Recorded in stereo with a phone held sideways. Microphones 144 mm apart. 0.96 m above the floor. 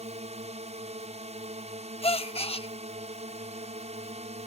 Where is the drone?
50° right (ahead or behind).